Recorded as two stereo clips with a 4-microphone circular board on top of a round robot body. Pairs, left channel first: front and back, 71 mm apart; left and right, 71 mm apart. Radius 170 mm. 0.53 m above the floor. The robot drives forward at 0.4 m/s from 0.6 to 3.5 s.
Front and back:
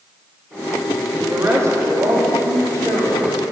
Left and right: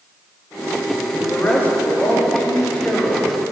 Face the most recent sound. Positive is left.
turn(degrees=165)